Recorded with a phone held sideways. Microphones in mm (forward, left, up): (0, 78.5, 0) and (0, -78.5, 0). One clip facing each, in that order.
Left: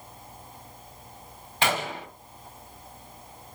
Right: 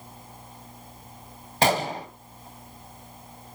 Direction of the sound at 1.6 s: 40° right (ahead or behind).